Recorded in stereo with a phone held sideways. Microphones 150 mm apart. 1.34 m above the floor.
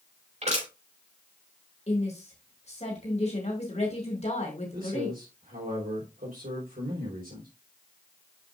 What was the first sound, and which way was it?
Crushing, 50° right (ahead or behind).